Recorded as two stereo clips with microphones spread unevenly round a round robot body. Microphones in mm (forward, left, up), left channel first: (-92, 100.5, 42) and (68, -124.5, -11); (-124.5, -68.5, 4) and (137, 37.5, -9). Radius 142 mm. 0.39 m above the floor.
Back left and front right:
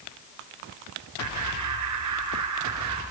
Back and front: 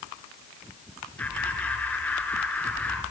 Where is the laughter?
75° right, 6.5 m.